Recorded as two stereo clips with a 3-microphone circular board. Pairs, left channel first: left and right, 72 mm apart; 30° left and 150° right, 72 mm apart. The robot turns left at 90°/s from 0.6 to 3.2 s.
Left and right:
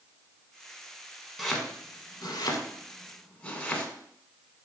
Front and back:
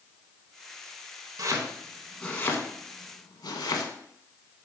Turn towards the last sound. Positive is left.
turn(degrees=25)